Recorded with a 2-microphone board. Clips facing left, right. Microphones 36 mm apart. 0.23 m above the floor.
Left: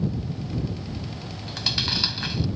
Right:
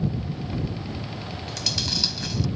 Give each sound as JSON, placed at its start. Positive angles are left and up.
{"t": 1.5, "sound": "chewing", "side_deg": 30}